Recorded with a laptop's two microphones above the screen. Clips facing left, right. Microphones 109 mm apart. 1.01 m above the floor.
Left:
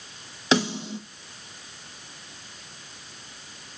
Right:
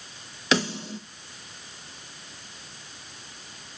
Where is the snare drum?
25° left (ahead or behind), 2.5 m.